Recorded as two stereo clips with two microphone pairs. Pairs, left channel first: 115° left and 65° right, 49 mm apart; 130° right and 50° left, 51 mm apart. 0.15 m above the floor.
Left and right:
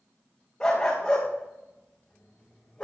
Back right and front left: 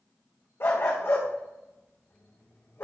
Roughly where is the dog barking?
Behind.